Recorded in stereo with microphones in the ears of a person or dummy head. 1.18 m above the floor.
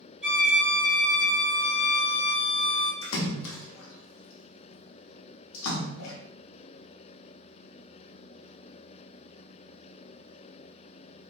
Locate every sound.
0.2 s a violin: 5° right (ahead or behind), 1.1 m
3.0 s a splash: 70° left (ahead or behind), 0.5 m